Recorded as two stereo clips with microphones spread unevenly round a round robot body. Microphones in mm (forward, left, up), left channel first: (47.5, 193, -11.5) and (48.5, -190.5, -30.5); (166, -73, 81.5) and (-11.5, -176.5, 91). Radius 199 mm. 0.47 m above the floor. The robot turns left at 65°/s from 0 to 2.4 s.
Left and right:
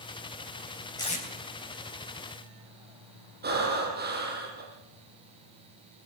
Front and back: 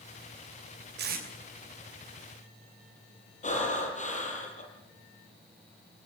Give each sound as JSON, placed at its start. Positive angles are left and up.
{"t": 1.0, "sound": "tape being pulled", "azimuth_deg": 175, "distance_m": 3.0}
{"t": 3.4, "sound": "breathing", "azimuth_deg": -25, "distance_m": 6.0}